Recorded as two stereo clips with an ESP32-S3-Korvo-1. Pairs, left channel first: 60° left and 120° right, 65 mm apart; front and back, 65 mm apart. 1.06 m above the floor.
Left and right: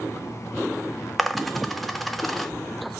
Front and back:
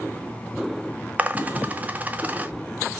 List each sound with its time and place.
1.2 s a dropped coin: 150° left, 0.9 m